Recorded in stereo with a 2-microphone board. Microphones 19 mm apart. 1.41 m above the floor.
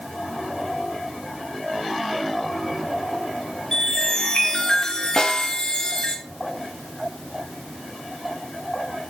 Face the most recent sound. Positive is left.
turn(degrees=40)  # may be behind; listen again after turning